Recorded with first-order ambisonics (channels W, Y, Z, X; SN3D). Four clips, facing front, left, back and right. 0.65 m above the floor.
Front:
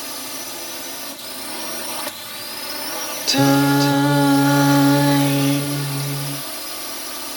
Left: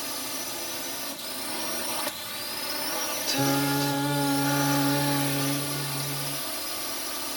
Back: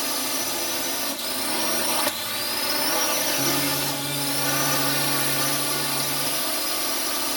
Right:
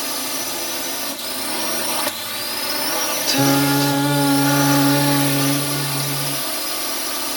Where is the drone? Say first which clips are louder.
Right 9 dB, back 4 dB; 115° right.